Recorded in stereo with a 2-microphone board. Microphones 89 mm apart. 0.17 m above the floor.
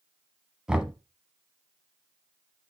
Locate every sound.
0.7 s knocking: 10° right (ahead or behind), 1.0 m